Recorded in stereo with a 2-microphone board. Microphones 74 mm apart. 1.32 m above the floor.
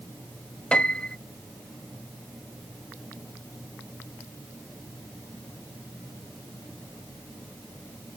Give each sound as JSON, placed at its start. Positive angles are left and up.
{"t": 0.7, "sound": "a piano", "side_deg": 15}